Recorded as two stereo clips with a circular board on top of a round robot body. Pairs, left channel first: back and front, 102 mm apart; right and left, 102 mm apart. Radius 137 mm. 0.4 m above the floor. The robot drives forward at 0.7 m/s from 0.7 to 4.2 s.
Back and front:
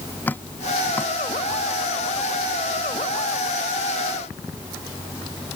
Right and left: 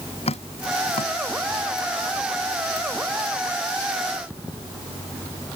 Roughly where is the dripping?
Right.